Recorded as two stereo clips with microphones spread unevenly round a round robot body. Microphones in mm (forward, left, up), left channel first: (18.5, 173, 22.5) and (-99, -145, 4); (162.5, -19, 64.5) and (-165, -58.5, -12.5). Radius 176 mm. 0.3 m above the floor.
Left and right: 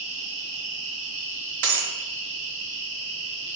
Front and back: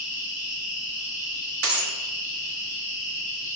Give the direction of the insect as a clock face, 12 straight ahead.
5 o'clock.